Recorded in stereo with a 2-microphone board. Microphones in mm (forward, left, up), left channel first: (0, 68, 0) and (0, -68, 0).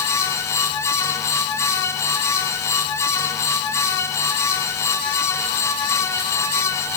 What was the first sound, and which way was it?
Only background noise.